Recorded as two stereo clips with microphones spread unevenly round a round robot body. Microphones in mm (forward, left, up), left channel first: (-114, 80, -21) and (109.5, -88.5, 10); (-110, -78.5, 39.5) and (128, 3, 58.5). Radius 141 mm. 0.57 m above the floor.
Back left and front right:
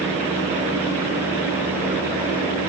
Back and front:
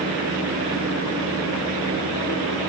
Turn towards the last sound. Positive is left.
No sound to turn to.